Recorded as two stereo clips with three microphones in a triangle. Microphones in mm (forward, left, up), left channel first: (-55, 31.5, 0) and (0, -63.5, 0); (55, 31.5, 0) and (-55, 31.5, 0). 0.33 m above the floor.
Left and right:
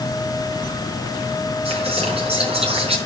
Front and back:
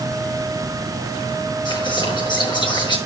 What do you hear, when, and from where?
1.6 s whispering: 40° right, 4.5 m